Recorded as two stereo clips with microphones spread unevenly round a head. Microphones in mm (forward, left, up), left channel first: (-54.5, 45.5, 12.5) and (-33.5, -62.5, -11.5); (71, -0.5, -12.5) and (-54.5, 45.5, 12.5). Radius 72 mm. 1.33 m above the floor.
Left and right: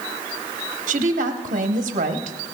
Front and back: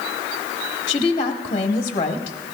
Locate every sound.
0.9 s a woman speaking: 80° right, 1.0 m